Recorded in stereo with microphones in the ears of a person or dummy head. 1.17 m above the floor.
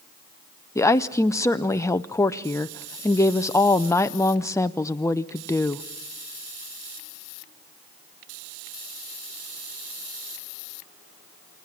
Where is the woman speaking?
5° left (ahead or behind), 0.5 m.